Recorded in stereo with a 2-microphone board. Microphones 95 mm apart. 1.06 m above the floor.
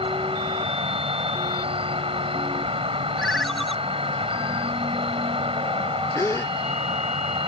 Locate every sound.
0.0 s an insect: 80° right
3.2 s a ringtone: centre (ahead or behind)
6.2 s a gasp: 30° left (ahead or behind)